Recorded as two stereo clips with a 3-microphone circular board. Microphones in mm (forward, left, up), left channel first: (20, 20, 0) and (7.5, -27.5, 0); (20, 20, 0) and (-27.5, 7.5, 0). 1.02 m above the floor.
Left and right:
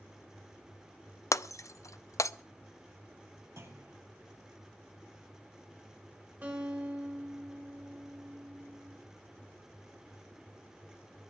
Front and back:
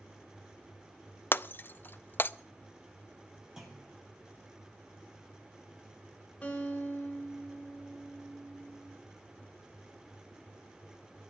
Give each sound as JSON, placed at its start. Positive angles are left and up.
{"t": 1.3, "sound": "breaking glass", "azimuth_deg": 65, "distance_m": 0.5}
{"t": 3.6, "sound": "a clunk", "azimuth_deg": -85, "distance_m": 6.0}
{"t": 6.4, "sound": "a guitar", "azimuth_deg": -45, "distance_m": 5.5}